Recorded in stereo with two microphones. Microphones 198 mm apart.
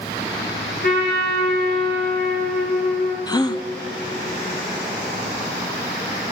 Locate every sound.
0.8 s a trumpet: 55° left (ahead or behind), 2.5 m
3.3 s a gasp: 20° left (ahead or behind), 0.5 m